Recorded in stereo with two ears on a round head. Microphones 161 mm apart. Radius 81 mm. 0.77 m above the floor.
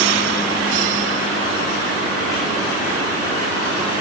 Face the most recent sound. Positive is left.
No sound to turn to.